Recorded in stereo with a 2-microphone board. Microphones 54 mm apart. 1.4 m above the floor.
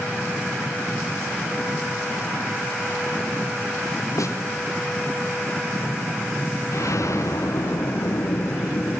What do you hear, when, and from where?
4.2 s a snare drum: 80° left, 4 m
6.7 s an explosion: 70° left (ahead or behind), 6.5 m